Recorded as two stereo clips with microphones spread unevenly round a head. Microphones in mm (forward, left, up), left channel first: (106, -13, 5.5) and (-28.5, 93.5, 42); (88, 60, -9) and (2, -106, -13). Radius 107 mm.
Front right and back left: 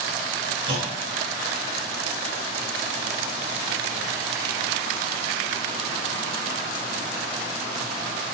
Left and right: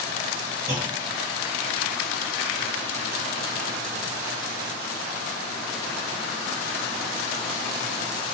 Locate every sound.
0.7 s a clunk: 165° right, 0.7 m